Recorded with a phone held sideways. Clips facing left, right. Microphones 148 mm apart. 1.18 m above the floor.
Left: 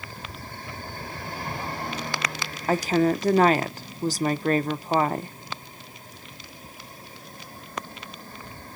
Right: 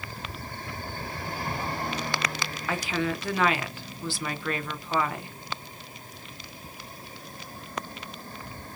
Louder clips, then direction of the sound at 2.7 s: Left 8 dB; 40° left (ahead or behind).